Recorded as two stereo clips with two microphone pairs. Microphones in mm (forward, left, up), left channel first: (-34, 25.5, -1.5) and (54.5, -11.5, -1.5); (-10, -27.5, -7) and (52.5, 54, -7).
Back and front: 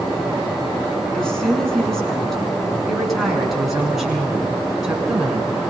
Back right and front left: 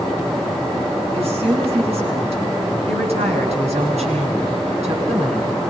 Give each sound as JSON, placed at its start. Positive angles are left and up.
{"t": 1.1, "sound": "a woman speaking", "azimuth_deg": 75, "distance_m": 9.0}